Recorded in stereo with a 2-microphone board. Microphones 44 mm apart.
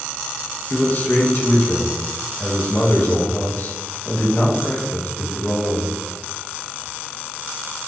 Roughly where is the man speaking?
Left.